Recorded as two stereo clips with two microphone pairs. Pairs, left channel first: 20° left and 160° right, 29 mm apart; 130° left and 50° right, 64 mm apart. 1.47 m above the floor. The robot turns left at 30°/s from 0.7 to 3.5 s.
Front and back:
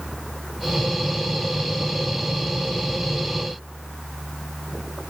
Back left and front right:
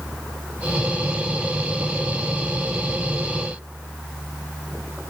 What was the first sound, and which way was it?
Only background noise.